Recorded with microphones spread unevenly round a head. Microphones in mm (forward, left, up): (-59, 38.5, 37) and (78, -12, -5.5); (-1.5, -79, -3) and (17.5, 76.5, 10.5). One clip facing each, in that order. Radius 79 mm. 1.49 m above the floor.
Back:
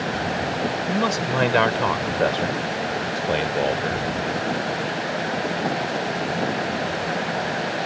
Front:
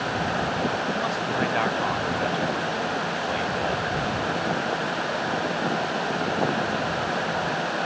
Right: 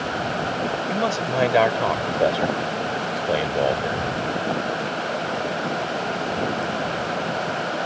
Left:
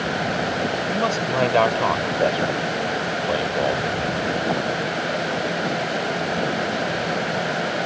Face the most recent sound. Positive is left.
turn(degrees=-165)